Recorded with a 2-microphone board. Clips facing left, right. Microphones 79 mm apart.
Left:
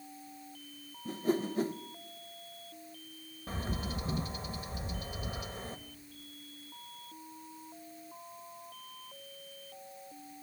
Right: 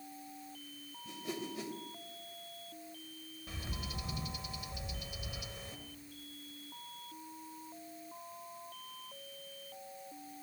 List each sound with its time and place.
1.1 s a whoosh: 40° left (ahead or behind), 0.8 m
3.5 s a bird: 40° left (ahead or behind), 1.3 m